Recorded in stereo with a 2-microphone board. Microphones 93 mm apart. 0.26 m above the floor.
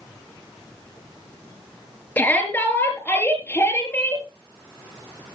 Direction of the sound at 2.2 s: 20° left (ahead or behind).